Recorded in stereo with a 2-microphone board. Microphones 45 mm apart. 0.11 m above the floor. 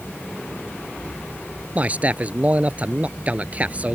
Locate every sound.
1.8 s a man speaking: 35° right (ahead or behind)